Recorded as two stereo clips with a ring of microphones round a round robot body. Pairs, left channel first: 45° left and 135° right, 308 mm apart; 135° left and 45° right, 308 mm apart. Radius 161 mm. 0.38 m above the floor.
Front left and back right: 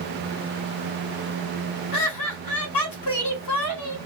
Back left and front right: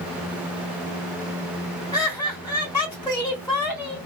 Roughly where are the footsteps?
No footsteps in this recording.